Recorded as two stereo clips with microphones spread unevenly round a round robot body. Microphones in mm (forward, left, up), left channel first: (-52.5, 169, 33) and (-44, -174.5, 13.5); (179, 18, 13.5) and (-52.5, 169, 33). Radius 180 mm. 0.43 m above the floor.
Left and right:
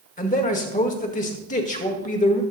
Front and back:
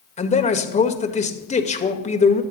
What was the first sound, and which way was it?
A man speaking, 25° left.